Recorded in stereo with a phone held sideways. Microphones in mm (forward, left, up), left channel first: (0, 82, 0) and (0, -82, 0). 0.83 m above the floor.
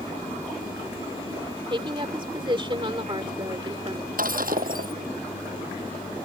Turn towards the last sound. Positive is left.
turn(degrees=-70)  # may be behind; listen again after turning